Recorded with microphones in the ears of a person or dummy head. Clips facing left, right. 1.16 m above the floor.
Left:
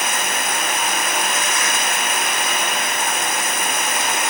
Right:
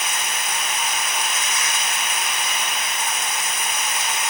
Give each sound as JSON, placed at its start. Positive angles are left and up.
{"t": 0.0, "sound": "running water", "side_deg": 55}